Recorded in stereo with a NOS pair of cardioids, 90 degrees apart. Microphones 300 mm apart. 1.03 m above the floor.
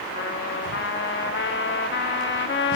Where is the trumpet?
40° left, 1.1 m.